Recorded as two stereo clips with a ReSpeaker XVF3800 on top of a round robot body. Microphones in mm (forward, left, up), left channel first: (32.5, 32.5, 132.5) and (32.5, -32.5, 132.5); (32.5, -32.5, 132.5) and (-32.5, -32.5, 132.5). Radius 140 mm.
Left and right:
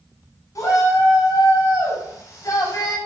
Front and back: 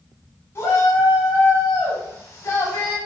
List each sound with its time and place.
0.6 s a shout: 50° left, 7.5 m; by 3.0 s 45° left, 6 m